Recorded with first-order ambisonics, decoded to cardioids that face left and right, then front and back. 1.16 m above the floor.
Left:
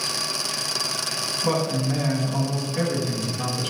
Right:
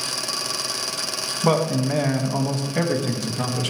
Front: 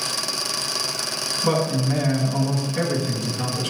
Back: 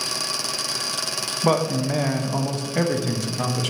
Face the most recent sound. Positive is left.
turn(degrees=-130)